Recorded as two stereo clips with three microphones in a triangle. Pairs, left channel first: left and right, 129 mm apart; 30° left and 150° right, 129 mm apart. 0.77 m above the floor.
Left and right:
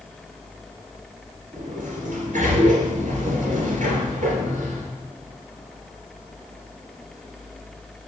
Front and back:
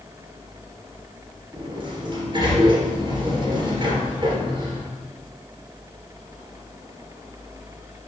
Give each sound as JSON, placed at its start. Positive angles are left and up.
{"t": 1.5, "sound": "a sliding door", "azimuth_deg": -100, "distance_m": 3.0}